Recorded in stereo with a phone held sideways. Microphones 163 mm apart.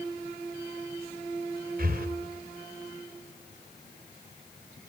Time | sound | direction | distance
1.8 | breathing | 60° right (ahead or behind) | 3 m